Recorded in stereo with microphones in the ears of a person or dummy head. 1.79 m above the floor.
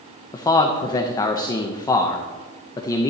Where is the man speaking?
20° left (ahead or behind), 0.7 m.